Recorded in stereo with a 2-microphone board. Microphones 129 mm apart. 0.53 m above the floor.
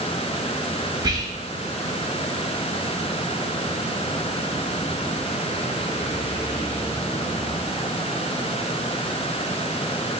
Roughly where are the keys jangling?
I don't hear keys jangling.